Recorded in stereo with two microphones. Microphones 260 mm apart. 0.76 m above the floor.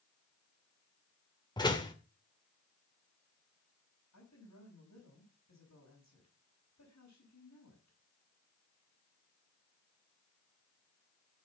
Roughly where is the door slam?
Centre.